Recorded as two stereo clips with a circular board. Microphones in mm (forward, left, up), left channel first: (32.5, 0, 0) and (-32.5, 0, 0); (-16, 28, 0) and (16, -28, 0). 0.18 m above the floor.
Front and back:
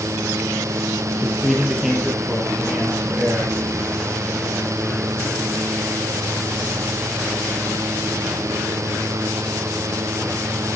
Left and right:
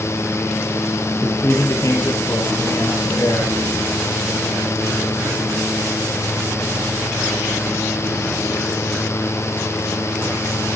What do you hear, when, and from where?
1.2 s a man speaking: 95° left, 1.8 m